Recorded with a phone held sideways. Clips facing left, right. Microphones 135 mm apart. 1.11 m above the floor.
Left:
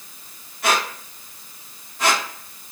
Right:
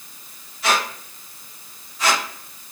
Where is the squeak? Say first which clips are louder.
Even; 55° left (ahead or behind), 1.1 m.